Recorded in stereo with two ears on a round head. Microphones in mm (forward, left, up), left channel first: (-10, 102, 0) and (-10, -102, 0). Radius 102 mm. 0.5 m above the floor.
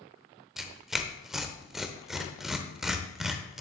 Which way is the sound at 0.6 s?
Centre (ahead or behind).